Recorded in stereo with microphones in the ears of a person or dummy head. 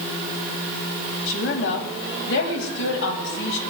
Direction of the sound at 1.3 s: 70° left (ahead or behind).